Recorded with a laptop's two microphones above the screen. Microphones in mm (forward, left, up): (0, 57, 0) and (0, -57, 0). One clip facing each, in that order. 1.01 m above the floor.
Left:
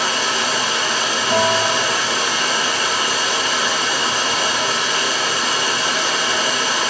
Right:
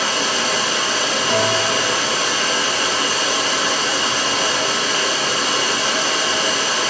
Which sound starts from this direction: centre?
A bell, at 1.3 s.